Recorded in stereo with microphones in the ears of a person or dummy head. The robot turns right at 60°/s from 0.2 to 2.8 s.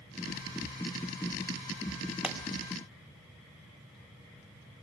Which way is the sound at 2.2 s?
5° right (ahead or behind).